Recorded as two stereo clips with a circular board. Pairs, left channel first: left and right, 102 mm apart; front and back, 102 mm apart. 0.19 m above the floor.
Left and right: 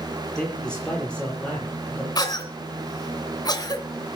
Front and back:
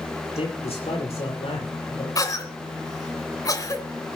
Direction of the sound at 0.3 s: 10° left.